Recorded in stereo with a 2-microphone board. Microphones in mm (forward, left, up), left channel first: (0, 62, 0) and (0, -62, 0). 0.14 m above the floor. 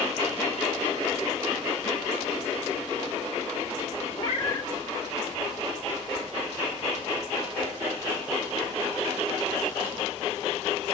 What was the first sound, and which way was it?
A cat meowing, 35° left (ahead or behind).